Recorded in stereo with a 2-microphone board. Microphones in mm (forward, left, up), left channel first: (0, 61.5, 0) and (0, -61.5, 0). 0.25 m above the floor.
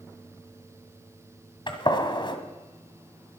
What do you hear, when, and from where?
1.7 s a gunshot: 45° left (ahead or behind), 1.8 m